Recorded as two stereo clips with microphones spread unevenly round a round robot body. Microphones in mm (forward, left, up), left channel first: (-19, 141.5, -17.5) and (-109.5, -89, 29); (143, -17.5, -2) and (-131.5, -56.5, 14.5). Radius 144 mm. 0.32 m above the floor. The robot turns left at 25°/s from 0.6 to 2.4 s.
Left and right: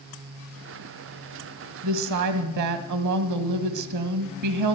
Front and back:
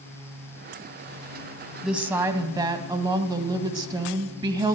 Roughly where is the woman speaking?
Right.